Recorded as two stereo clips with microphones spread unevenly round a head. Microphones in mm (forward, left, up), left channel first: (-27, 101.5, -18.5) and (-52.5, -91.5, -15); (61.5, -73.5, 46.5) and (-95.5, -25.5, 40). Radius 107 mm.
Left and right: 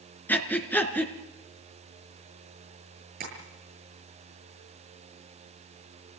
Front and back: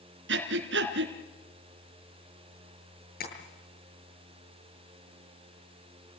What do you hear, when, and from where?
0.3 s breathing: 165° left, 3 m
3.2 s tapping: 45° right, 8 m